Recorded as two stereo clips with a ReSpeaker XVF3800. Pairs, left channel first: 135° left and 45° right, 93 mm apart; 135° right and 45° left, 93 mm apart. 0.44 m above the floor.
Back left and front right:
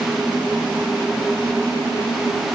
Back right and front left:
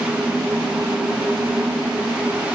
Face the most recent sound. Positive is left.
No sound to turn to.